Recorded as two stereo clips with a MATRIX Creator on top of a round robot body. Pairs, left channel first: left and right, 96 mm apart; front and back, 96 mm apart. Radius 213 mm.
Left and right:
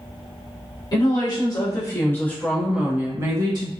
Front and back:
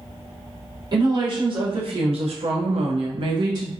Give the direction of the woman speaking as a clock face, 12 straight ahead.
8 o'clock.